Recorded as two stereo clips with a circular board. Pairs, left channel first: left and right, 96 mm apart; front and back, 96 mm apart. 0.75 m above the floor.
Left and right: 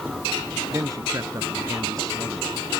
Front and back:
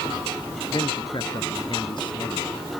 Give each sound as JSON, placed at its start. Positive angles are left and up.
{"t": 0.7, "sound": "a man speaking", "azimuth_deg": -35}